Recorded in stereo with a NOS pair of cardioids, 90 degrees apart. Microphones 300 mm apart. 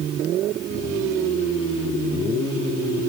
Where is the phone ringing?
No phone ringing in this recording.